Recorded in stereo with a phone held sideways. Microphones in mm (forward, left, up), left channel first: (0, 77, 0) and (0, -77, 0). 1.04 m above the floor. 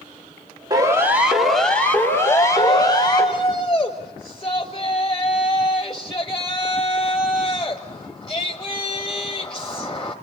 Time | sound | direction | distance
0.7 | a siren | 25° right (ahead or behind) | 2 m
2.2 | a shout | 30° left (ahead or behind) | 1.5 m